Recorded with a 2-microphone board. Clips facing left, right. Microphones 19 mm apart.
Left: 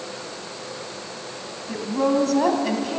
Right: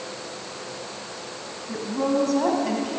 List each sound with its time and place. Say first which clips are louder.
1.7 s a woman speaking: left 3 dB; 25° left (ahead or behind), 3 m